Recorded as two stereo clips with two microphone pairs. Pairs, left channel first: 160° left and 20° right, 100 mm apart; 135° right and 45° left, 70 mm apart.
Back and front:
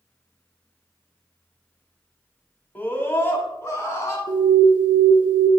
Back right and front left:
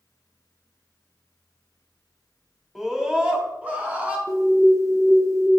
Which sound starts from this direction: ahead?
An alarm, at 4.3 s.